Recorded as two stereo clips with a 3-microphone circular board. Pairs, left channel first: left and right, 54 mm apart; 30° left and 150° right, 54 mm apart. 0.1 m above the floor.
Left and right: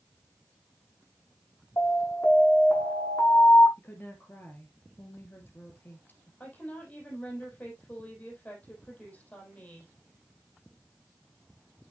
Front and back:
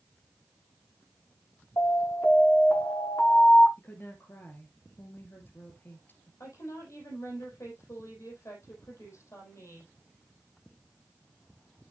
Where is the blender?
No blender in this recording.